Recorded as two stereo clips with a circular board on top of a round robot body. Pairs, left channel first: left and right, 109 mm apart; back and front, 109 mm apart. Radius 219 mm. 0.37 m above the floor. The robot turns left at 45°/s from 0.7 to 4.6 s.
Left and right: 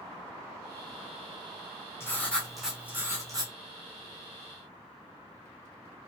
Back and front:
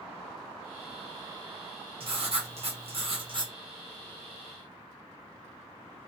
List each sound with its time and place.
2.0 s writing: 25° left, 1.5 m; by 3.5 s 45° right, 1.5 m